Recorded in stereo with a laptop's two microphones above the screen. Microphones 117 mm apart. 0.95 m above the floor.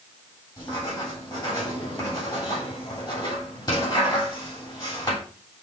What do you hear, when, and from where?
0.6 s writing: 35° left (ahead or behind), 3 m